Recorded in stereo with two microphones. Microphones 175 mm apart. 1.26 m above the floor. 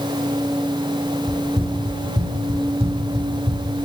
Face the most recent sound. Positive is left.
turn(degrees=-35)  # may be behind; listen again after turning